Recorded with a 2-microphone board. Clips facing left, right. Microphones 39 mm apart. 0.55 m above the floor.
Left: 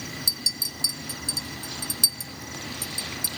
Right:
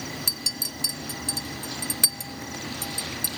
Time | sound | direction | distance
0.3 | a clink | 50° right (ahead or behind) | 0.5 m